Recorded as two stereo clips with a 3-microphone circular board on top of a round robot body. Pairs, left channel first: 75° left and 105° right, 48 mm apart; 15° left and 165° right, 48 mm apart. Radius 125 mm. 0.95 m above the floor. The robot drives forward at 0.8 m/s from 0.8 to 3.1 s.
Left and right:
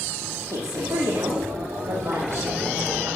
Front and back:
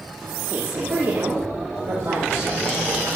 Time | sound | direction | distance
0.5 | a woman speaking | 105° right | 2 m